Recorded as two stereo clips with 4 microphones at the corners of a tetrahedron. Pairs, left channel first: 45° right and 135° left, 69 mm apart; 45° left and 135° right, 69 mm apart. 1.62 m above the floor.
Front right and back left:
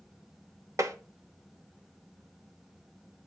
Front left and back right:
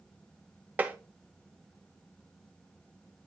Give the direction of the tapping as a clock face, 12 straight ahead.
7 o'clock.